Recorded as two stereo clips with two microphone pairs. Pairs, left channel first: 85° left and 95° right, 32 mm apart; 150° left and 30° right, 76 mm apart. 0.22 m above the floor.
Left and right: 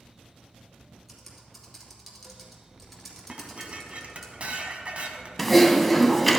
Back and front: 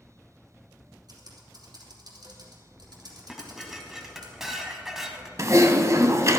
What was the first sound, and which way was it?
Typing on a keyboard, 10° right.